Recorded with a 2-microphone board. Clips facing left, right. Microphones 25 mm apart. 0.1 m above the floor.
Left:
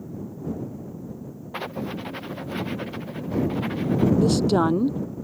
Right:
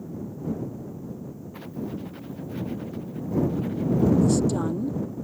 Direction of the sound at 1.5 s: 80° left.